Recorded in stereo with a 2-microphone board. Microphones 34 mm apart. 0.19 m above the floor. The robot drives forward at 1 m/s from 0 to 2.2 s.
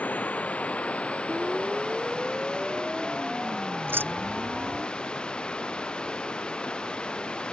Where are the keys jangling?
80° right.